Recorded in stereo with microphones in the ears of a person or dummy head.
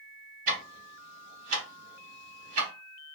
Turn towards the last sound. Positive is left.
turn(degrees=-35)  # may be behind; listen again after turning